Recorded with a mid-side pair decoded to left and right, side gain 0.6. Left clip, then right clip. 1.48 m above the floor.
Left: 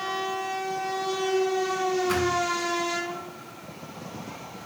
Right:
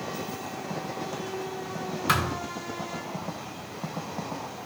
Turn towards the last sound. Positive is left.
turn(degrees=-70)